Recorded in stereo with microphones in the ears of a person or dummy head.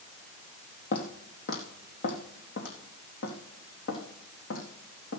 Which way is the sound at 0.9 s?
50° left (ahead or behind).